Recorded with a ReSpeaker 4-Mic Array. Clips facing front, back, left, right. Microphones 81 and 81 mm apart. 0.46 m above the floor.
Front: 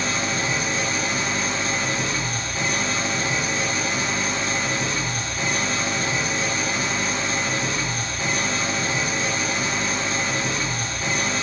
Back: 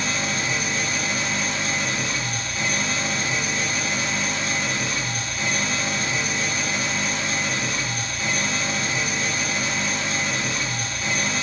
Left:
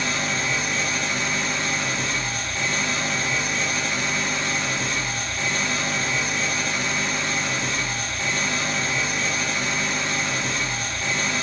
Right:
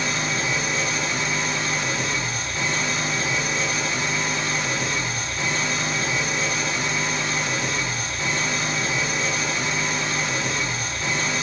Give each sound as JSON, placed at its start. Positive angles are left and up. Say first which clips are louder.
{"t": 0.0, "sound": "an engine running", "louder": "front 1 dB, even", "azimuth_deg": -25, "distance_m": 1.0}